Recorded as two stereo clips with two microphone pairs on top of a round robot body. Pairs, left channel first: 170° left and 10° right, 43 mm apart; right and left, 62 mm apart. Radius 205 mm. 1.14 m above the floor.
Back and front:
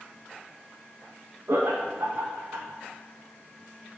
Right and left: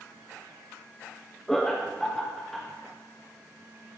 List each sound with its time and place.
1.5 s laughter: 5° right, 1.1 m